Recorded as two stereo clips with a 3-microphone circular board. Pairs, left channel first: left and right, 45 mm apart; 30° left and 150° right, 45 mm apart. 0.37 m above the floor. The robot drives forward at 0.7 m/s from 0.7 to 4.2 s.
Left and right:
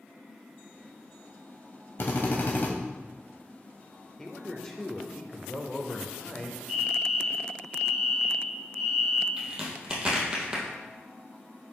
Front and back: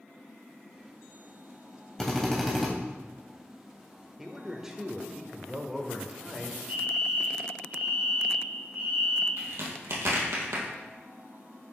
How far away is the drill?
About 1.2 m.